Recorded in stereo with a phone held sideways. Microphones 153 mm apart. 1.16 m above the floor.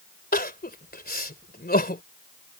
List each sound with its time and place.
0.3 s crying: 85° left